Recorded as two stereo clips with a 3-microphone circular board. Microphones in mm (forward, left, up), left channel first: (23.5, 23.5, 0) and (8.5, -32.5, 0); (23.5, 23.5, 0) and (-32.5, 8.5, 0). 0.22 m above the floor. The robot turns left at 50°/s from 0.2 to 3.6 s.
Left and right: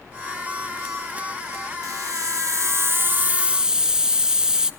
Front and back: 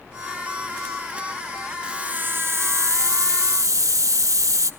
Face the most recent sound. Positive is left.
turn(degrees=180)